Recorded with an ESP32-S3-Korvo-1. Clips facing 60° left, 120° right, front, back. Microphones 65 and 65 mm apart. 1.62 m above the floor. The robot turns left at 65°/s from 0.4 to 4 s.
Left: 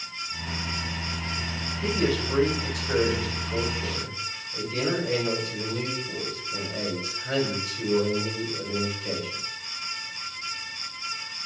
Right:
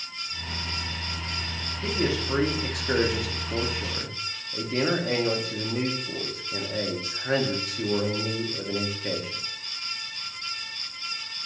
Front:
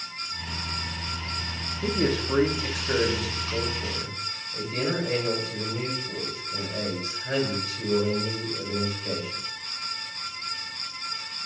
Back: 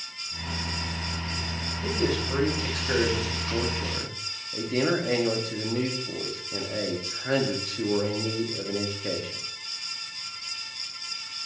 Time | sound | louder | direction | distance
1.8 | a man speaking | left 1 dB, front 2 dB | 25° right | 1.1 m